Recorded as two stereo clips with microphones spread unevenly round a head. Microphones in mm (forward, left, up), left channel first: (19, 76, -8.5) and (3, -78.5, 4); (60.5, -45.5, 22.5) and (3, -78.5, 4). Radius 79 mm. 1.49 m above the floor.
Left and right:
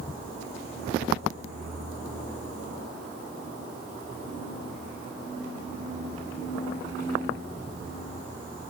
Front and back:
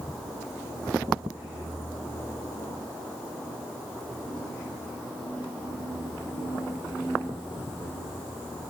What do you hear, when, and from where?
Only background noise.